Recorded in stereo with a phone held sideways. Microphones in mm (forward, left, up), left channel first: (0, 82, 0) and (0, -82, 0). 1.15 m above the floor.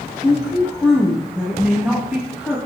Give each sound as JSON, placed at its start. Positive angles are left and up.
{"t": 0.2, "sound": "a woman speaking", "side_deg": -5, "distance_m": 1.1}